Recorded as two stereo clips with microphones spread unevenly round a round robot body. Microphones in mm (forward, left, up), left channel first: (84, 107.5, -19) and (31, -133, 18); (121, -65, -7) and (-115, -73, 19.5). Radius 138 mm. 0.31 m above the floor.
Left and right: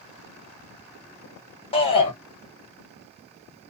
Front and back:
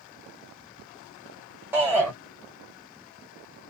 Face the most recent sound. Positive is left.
turn(degrees=95)